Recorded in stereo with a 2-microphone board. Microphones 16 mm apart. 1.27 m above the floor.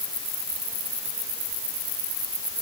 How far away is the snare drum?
No snare drum in this recording.